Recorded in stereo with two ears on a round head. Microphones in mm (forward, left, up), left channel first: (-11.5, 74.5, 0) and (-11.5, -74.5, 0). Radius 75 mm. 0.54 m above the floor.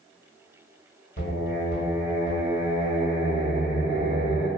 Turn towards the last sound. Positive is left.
turn(degrees=50)  # may be behind; listen again after turning